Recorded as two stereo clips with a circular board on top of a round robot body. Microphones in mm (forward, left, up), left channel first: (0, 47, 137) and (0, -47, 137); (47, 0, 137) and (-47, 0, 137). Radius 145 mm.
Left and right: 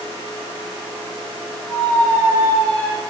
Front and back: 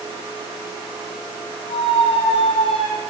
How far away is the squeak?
About 9.5 m.